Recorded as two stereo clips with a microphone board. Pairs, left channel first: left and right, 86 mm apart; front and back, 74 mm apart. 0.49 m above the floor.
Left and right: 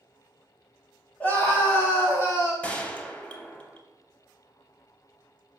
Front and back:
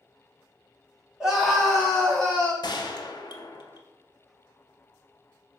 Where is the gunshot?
15° left, 0.5 m.